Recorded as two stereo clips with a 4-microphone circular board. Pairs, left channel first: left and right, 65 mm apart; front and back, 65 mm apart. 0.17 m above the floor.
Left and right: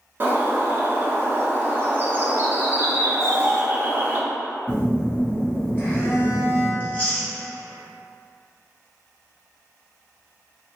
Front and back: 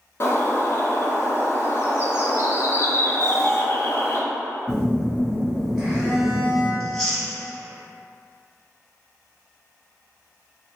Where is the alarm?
120° right, 1.5 m.